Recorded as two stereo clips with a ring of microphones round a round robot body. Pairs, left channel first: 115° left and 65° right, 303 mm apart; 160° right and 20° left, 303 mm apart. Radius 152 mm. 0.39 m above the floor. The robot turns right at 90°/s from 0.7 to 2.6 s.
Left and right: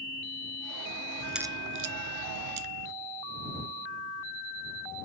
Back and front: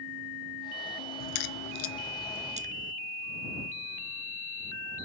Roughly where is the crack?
Behind.